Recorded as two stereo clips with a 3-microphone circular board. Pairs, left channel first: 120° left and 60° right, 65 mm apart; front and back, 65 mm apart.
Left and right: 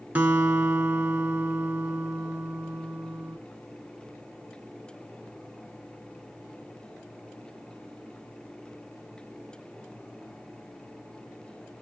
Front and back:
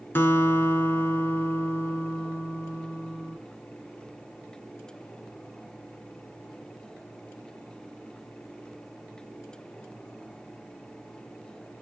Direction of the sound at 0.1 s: 20° right.